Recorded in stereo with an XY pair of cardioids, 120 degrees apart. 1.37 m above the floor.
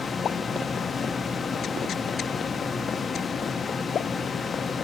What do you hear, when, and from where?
0.0 s a fan: 30° left, 1.0 m